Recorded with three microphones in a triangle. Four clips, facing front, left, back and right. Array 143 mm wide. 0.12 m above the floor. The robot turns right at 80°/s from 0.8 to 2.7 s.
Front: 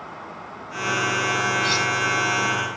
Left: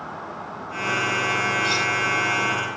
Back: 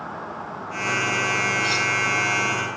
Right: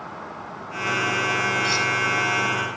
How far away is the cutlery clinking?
About 2.5 m.